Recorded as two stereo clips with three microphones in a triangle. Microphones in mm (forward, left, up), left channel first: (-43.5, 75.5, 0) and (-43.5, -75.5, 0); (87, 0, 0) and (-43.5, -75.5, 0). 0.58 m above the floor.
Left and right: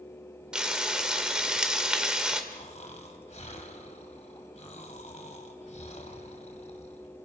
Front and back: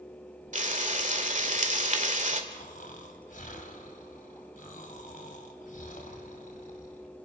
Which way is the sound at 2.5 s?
50° left.